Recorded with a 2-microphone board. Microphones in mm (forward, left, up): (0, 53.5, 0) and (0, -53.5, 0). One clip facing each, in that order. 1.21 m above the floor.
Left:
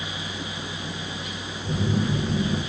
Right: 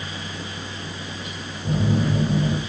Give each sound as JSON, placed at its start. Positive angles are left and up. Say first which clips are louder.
{"t": 1.6, "sound": "a phone buzzing", "louder": "right 3 dB", "side_deg": -40, "distance_m": 4.5}